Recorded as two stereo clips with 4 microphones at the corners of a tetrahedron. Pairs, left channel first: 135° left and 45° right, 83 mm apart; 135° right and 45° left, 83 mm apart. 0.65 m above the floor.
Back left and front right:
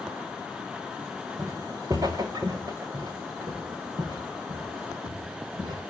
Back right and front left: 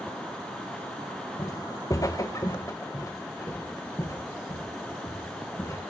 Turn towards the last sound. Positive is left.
turn(degrees=-75)